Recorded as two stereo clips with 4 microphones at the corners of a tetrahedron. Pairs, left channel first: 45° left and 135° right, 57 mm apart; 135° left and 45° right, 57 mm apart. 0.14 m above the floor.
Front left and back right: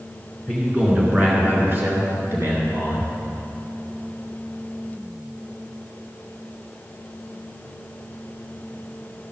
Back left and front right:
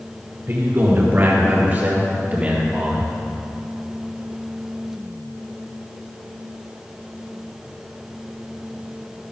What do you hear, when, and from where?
0.5 s a man speaking: 60° right, 2.5 m; by 3.1 s 110° right, 3.5 m